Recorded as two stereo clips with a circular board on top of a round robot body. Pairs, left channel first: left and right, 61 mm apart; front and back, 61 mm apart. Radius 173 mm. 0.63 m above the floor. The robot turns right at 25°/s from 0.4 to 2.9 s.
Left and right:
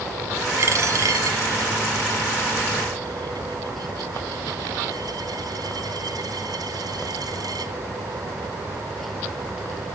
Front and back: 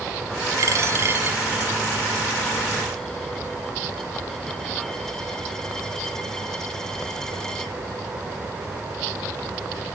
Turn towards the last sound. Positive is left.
turn(degrees=-80)